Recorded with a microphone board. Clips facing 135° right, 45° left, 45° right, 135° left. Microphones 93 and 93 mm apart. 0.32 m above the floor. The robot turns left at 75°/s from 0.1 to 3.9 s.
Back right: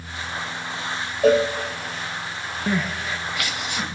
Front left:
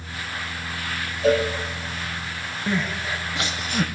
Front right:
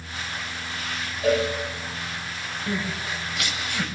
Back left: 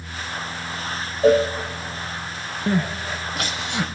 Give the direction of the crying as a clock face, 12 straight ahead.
7 o'clock.